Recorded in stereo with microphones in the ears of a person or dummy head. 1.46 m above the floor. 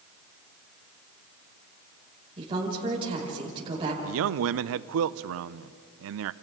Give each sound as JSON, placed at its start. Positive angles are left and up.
{"t": 2.4, "sound": "a woman speaking", "side_deg": -25, "distance_m": 6.0}
{"t": 4.0, "sound": "a man speaking", "side_deg": -65, "distance_m": 0.5}